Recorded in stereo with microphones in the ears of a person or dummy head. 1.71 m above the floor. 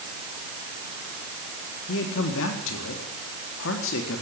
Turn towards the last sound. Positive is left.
turn(degrees=70)  # may be behind; listen again after turning